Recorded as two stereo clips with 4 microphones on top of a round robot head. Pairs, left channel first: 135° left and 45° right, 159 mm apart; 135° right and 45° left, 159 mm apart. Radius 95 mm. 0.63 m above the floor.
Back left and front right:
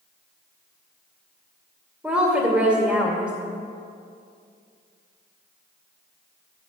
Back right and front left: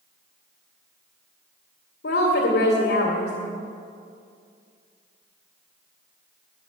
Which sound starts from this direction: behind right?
A woman speaking, at 2.0 s.